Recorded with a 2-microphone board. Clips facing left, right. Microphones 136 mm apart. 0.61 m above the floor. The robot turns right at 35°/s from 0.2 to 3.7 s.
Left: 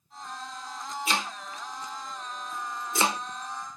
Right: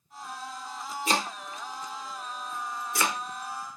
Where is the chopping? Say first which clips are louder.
Right 3 dB; 40° right (ahead or behind), 0.9 m; by 3.2 s 30° left (ahead or behind), 0.9 m.